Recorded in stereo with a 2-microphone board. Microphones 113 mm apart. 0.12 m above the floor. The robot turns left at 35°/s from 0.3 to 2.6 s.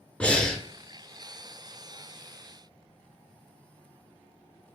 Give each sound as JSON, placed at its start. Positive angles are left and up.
{"t": 0.2, "sound": "breathing", "side_deg": 10, "distance_m": 0.6}